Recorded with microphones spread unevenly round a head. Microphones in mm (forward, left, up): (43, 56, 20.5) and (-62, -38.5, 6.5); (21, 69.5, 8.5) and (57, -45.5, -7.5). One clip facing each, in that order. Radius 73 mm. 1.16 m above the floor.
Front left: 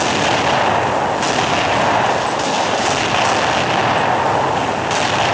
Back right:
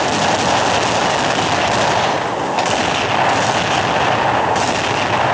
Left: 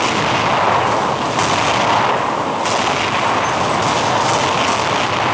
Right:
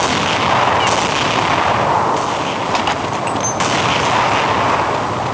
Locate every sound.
Only background noise.